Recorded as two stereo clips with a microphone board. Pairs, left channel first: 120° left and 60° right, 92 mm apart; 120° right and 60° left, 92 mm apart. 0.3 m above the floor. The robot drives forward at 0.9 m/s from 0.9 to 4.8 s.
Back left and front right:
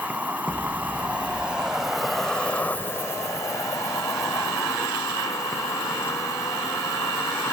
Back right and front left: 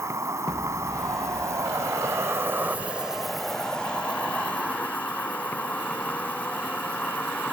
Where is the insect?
10° left; by 7.5 s 170° left.